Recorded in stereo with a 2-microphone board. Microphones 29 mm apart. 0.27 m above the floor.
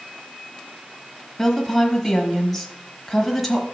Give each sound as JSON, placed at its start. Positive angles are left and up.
{"t": 1.4, "sound": "a woman speaking", "side_deg": 5, "distance_m": 1.1}